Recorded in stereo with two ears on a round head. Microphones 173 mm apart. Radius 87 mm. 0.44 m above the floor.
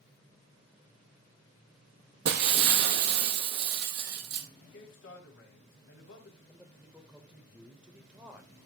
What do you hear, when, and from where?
2.2 s breaking glass: 60° right (ahead or behind), 0.9 m
4.6 s a man speaking: 65° left (ahead or behind), 2.5 m
6.5 s a man speaking: 5° right (ahead or behind), 1.2 m